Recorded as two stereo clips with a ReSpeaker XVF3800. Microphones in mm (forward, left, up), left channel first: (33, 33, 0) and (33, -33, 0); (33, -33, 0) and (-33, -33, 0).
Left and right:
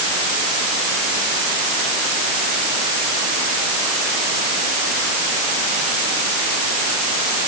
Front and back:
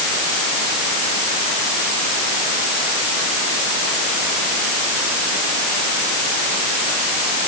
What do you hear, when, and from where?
Only background noise.